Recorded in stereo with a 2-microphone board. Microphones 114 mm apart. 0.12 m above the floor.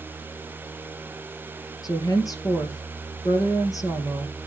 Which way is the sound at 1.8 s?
30° left (ahead or behind).